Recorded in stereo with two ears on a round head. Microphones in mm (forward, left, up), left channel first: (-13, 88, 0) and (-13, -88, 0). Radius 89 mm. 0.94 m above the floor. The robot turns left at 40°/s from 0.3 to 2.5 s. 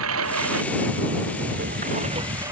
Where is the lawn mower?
75° right; by 2.5 s 165° right.